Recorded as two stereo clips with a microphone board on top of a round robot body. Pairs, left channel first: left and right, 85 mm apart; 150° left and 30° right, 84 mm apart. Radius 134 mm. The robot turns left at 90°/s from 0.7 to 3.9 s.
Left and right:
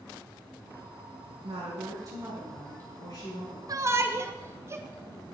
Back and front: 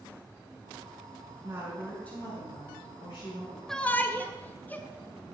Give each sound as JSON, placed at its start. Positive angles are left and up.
{"t": 1.4, "sound": "a woman speaking", "azimuth_deg": -80, "distance_m": 6.5}
{"t": 3.7, "sound": "a shout", "azimuth_deg": -125, "distance_m": 1.7}